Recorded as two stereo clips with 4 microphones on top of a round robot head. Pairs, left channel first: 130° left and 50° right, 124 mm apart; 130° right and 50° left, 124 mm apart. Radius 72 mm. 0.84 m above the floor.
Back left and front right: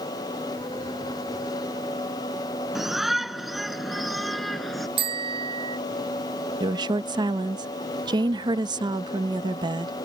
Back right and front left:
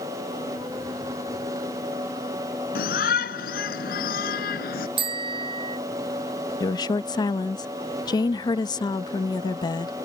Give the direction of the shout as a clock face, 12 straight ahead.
5 o'clock.